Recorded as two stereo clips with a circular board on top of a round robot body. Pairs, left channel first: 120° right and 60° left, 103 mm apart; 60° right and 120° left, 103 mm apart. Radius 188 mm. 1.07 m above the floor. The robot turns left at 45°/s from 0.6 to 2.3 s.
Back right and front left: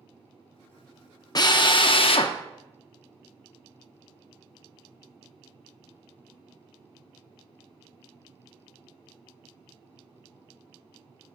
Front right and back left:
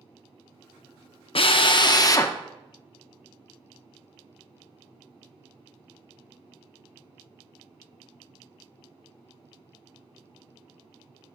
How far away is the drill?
About 0.6 m.